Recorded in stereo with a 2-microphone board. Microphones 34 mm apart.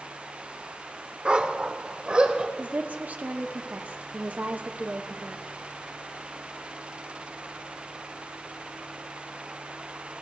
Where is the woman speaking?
50° right (ahead or behind), 1.5 m.